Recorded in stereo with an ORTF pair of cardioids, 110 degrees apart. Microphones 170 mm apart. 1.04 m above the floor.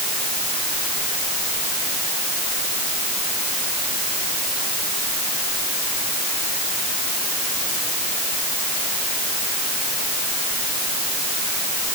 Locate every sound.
Only background noise.